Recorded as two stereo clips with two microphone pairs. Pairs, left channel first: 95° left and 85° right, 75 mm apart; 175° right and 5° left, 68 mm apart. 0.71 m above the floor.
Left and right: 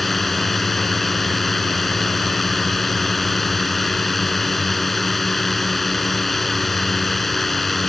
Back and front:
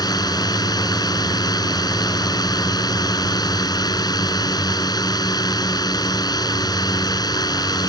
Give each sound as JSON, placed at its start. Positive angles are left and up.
{"t": 0.0, "sound": "a drone", "azimuth_deg": -175}